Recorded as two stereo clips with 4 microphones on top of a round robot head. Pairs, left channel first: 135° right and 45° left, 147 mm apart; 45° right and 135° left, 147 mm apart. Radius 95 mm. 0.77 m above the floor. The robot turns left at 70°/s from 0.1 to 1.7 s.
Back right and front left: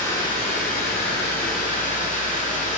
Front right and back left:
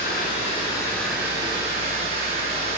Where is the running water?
65° right, 1.9 m; by 2.8 s 175° right, 1.9 m.